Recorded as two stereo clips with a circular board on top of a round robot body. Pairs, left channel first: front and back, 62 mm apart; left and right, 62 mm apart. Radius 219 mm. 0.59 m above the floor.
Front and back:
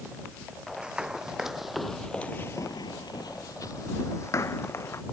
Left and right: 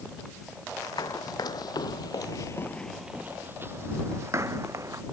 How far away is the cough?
No cough in this recording.